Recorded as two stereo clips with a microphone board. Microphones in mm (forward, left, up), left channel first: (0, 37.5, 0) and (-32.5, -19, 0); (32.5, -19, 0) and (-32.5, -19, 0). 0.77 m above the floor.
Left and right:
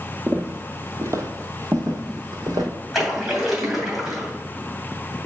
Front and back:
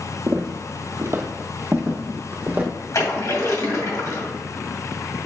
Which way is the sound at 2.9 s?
30° right.